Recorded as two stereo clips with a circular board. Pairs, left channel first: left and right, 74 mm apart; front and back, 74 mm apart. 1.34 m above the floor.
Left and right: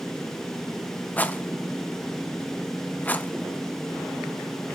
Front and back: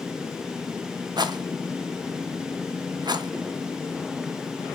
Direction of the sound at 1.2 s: 160° left.